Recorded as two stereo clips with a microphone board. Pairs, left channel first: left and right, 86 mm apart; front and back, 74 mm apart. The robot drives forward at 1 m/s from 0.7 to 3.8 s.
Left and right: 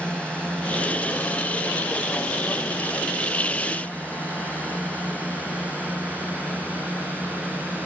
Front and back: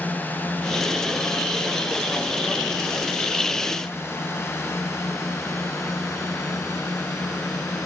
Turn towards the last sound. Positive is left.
turn(degrees=20)